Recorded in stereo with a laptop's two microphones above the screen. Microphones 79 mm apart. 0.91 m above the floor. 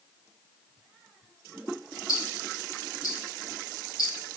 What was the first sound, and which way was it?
Ticking, 45° left (ahead or behind).